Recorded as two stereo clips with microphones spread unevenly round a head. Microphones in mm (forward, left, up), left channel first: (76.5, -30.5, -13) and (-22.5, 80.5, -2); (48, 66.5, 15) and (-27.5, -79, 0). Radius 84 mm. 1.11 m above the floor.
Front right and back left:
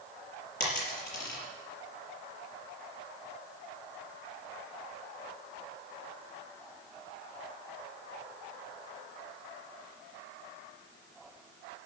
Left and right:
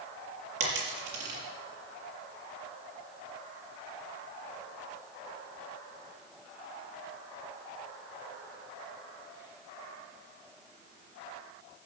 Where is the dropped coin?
95° right, 5.5 m.